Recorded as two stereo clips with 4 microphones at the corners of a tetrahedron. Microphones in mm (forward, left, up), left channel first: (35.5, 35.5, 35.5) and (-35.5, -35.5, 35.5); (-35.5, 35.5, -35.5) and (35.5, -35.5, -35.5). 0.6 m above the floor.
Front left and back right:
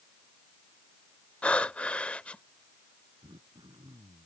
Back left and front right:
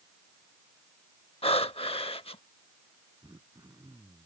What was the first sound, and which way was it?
Breathing, 120° left.